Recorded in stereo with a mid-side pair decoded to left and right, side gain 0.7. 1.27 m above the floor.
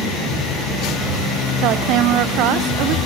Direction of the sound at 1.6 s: 60° right.